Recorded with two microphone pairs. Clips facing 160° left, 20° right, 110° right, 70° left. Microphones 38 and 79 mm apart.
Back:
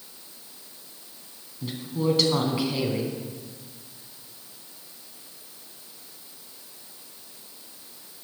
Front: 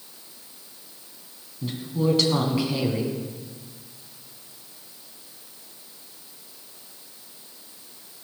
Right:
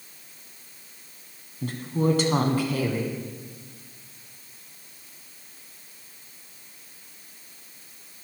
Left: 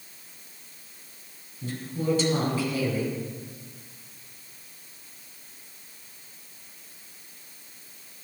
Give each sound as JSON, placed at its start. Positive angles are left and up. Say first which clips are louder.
{"t": 1.6, "sound": "a woman speaking", "louder": "front 2 dB, right 5 dB", "azimuth_deg": -110, "distance_m": 2.5}